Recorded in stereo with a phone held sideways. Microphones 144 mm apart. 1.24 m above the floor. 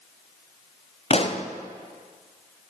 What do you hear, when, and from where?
1.1 s a pop: 45° left (ahead or behind), 0.5 m